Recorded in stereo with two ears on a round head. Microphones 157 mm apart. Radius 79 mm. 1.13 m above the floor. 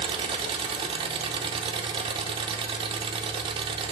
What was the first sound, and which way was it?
An engine running, 30° right (ahead or behind).